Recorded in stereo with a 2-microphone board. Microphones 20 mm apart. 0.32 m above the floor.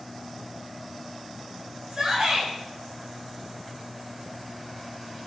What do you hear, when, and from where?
1.9 s a shout: 55° right (ahead or behind), 2 m